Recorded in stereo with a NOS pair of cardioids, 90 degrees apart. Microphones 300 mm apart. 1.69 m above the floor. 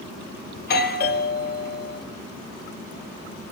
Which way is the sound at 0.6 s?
30° left.